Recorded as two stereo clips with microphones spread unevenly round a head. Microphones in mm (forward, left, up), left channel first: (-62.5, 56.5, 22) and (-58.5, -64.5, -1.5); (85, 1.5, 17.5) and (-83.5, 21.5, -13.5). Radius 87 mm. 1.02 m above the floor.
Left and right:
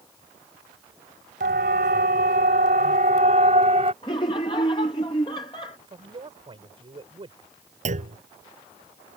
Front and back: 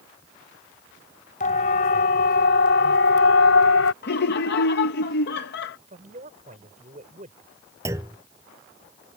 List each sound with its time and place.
1.4 s a siren: 55° right; by 3.9 s 25° right
4.0 s laughter: 25° left
5.9 s a man speaking: 135° right
7.8 s a clunk: 110° right